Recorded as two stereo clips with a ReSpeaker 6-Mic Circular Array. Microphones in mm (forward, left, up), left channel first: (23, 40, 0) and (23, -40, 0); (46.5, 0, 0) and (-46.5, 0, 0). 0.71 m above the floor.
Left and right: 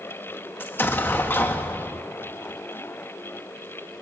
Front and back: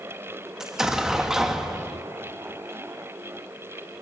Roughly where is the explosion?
Left.